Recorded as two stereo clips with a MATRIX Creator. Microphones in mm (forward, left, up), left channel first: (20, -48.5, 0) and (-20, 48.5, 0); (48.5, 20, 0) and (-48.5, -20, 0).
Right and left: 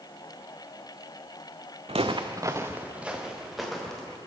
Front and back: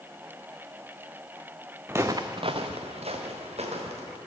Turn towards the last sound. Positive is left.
turn(degrees=-155)